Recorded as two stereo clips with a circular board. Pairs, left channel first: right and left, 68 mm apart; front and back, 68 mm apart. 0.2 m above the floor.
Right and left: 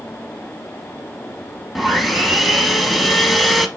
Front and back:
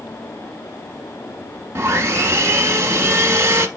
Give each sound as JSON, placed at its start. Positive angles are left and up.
{"t": 1.8, "sound": "sawing", "azimuth_deg": 175, "distance_m": 0.7}